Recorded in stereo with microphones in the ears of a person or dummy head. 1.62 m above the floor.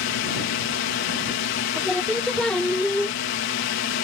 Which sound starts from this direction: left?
A drone, at 0.0 s.